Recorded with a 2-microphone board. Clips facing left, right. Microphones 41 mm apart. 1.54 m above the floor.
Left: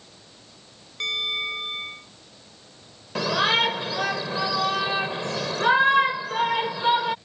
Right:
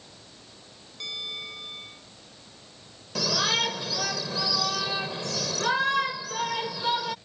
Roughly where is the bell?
Left.